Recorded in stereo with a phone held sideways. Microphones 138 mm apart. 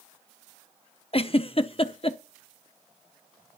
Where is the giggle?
45° left (ahead or behind), 0.6 m.